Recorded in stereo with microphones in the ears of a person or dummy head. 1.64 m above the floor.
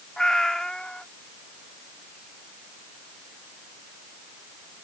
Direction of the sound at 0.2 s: 5° left (ahead or behind).